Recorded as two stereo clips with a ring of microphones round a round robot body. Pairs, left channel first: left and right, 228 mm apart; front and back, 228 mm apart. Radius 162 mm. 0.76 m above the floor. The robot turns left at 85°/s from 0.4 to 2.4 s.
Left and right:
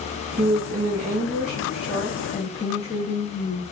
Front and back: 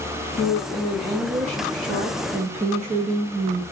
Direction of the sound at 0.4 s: 50° right.